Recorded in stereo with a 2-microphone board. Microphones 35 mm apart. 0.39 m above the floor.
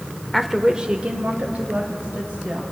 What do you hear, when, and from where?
0.3 s a woman speaking: centre (ahead or behind), 0.8 m; by 2.6 s 65° right (ahead or behind), 2 m